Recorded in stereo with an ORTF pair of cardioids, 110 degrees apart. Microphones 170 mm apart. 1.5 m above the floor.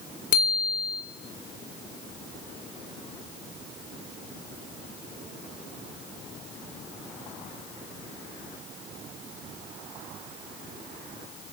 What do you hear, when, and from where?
0.3 s a bicycle bell: 55° left, 3.5 m